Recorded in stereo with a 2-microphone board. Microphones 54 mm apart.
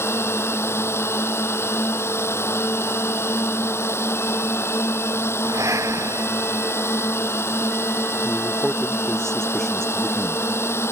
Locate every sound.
0.0 s a drone: 50° left (ahead or behind)
5.5 s breathing: 75° right (ahead or behind)
8.2 s a man speaking: 10° left (ahead or behind)